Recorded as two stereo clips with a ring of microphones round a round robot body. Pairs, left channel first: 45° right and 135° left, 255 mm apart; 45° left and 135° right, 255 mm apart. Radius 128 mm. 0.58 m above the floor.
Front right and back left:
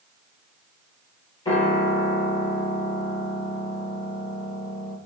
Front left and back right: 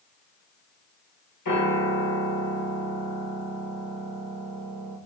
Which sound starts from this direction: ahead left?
A piano, at 1.4 s.